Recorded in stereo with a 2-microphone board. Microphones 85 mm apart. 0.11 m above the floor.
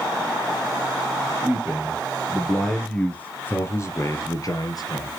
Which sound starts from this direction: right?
A man speaking, at 1.4 s.